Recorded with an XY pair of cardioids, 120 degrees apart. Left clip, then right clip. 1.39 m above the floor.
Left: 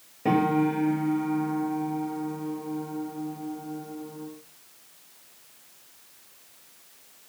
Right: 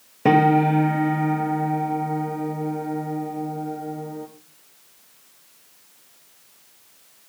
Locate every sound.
0.2 s a piano: 55° right, 3 m